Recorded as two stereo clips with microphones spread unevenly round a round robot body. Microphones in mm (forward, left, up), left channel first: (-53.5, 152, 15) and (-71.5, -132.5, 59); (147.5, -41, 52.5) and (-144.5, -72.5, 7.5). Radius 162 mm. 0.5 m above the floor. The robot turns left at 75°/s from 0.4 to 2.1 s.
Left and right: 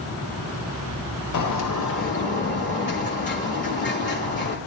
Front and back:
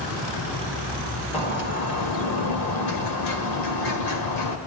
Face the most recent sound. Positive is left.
turn(degrees=25)